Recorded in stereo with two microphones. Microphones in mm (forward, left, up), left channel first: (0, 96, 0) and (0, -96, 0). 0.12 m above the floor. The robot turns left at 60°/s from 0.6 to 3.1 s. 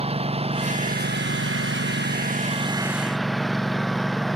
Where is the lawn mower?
30° right; by 4.4 s straight behind.